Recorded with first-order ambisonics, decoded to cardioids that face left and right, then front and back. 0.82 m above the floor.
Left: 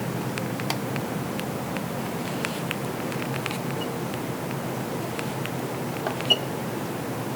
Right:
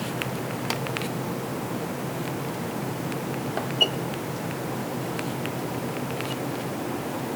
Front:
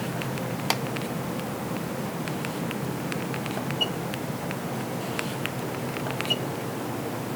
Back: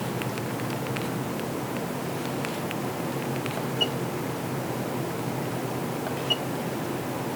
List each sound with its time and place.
Only background noise.